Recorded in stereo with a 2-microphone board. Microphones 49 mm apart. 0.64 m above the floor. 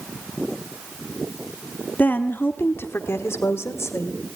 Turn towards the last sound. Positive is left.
turn(degrees=75)  # may be behind; listen again after turning